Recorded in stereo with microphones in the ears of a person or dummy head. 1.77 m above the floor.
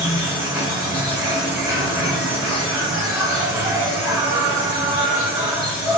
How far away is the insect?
About 1.6 m.